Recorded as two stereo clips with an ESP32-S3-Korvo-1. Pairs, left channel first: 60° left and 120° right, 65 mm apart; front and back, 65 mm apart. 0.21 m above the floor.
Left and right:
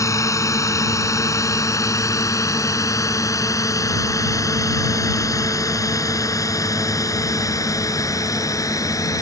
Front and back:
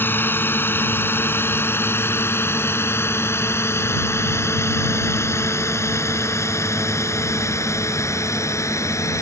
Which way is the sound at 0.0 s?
50° left.